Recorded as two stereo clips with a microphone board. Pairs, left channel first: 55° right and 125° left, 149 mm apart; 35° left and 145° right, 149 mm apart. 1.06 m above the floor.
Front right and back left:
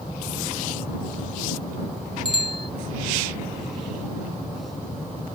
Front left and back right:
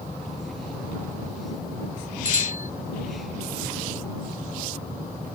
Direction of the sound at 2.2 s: Straight ahead.